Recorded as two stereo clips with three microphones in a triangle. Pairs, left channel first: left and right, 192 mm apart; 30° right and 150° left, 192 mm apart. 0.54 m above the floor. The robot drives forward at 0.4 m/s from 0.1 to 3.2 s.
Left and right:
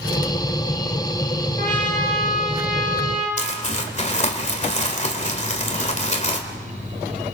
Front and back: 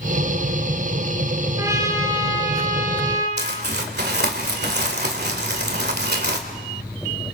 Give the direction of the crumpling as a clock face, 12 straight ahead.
7 o'clock.